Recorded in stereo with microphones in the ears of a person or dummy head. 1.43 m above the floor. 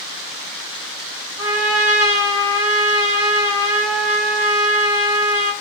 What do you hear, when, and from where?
1.4 s a trumpet: 10° right (ahead or behind), 1.5 m